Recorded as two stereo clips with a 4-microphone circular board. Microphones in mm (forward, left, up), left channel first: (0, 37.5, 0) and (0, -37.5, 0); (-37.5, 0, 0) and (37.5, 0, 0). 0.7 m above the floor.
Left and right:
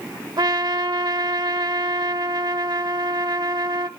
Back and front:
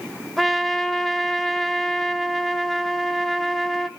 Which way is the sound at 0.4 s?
90° right.